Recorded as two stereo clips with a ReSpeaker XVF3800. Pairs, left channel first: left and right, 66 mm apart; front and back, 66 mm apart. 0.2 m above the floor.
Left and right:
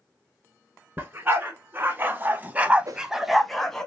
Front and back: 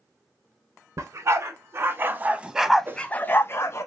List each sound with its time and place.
1.0 s a dog barking: 145° right, 1.1 m; by 3.9 s 10° left, 0.7 m
2.9 s a whoosh: 120° right, 0.6 m